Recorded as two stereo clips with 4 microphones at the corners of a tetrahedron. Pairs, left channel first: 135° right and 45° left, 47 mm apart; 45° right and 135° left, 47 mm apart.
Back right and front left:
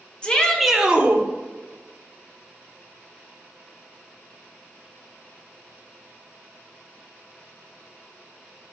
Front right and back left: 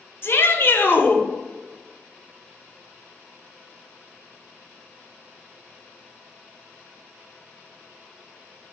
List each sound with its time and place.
0.2 s a shout: 70° right, 1.6 m; by 1.2 s straight ahead, 1.5 m